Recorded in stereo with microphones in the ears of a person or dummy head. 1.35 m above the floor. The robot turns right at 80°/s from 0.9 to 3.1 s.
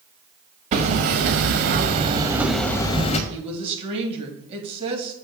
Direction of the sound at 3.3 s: 35° right (ahead or behind).